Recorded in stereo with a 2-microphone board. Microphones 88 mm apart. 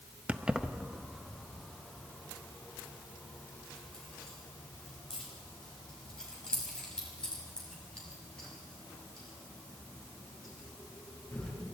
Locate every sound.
0.3 s keys jangling: 15° right (ahead or behind), 0.8 m; by 11.5 s 10° left (ahead or behind), 10 m